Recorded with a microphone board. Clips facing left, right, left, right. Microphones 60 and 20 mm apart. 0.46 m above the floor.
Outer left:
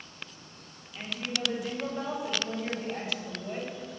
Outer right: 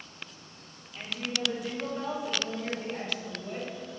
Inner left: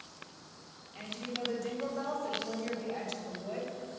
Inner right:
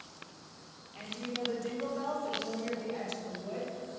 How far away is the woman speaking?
About 1.3 m.